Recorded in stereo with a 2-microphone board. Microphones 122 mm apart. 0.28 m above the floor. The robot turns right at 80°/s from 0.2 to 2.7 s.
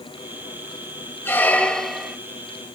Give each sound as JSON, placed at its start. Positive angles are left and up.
{"t": 1.2, "sound": "a squeak", "side_deg": 15, "distance_m": 0.9}